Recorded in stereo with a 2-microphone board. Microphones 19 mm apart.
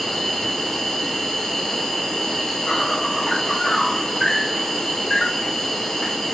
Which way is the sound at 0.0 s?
20° left (ahead or behind).